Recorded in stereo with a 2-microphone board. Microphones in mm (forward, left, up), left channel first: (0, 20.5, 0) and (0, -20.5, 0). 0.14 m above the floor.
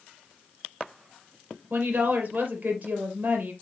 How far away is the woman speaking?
About 3.5 m.